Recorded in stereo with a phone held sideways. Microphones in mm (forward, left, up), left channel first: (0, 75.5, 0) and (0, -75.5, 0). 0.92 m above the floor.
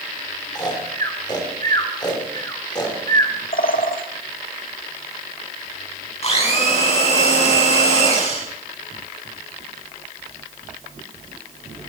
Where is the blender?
45° left (ahead or behind), 6.5 m.